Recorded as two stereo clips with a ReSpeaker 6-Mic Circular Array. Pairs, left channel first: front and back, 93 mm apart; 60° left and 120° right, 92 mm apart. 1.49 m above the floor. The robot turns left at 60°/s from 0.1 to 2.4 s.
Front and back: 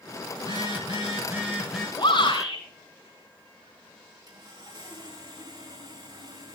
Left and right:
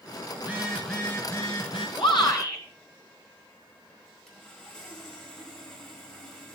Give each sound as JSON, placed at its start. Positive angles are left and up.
{"t": 0.4, "sound": "a phone buzzing", "azimuth_deg": 170, "distance_m": 5.5}
{"t": 2.0, "sound": "a shout", "azimuth_deg": 35, "distance_m": 6.0}
{"t": 4.3, "sound": "sawing", "azimuth_deg": 145, "distance_m": 5.0}